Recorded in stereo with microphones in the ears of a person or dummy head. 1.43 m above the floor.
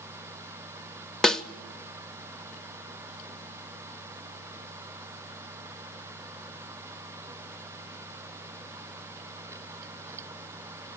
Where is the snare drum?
5° left (ahead or behind), 0.8 m.